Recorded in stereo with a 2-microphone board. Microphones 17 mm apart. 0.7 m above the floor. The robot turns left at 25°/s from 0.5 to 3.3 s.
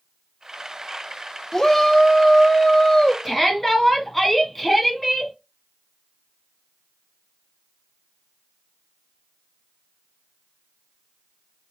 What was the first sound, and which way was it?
A shout, 110° left.